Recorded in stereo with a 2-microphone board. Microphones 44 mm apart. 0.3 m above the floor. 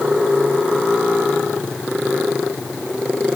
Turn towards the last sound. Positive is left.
No sound to turn to.